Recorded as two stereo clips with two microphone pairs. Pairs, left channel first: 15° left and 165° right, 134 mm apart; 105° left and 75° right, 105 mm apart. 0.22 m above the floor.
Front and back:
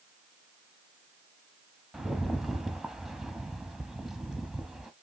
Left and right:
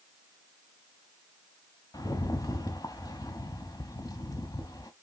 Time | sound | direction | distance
1.9 | a rattle | 105° left | 0.6 m